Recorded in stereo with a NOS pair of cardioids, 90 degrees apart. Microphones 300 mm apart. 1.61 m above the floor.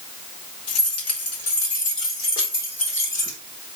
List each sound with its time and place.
0.7 s keys jangling: 65° left, 3 m; by 3.4 s 40° left, 4 m